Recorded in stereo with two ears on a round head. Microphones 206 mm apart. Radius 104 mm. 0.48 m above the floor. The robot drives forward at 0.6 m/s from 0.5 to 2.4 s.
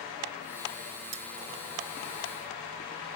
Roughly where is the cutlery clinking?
Right.